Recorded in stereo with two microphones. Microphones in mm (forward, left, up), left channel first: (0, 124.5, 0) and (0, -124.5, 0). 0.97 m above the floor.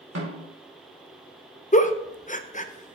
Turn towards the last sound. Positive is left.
turn(degrees=30)  # may be behind; listen again after turning